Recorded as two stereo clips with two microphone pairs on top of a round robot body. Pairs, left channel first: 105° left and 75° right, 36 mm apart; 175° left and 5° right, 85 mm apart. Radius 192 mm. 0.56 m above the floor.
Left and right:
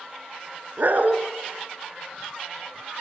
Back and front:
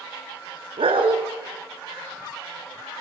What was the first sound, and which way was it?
A dog barking, 35° right.